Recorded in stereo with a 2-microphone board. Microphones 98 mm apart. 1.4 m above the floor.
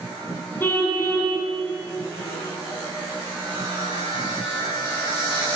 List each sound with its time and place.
0.6 s a car horn: 20° left (ahead or behind), 7.5 m